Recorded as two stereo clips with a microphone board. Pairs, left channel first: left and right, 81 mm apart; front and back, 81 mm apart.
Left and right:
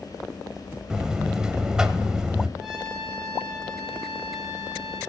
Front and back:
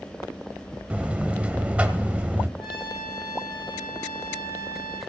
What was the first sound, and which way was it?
A buzzer, 150° right.